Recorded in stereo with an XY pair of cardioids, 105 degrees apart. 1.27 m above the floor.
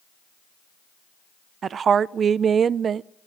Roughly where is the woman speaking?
Ahead right.